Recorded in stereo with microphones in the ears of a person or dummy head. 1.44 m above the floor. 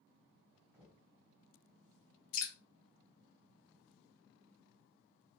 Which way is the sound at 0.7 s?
10° right (ahead or behind).